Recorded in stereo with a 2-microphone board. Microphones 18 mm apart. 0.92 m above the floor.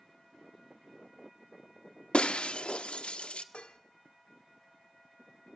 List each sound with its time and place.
2.1 s breaking glass: 85° left, 1.1 m
3.5 s dishes clattering: 85° left, 1.8 m